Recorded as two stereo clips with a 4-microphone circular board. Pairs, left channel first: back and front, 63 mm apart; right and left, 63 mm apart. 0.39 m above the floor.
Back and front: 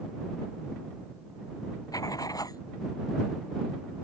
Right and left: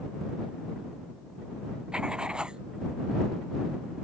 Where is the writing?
165° left.